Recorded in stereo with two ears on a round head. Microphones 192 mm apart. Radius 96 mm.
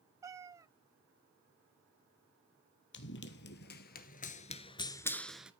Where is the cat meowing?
15° right (ahead or behind), 1.0 m.